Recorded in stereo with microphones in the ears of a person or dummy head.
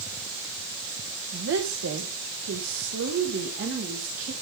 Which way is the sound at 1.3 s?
65° right (ahead or behind).